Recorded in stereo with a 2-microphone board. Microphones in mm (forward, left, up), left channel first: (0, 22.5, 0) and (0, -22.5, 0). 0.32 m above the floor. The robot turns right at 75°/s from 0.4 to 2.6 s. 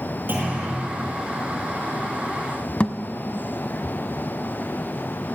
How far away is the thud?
About 1.0 m.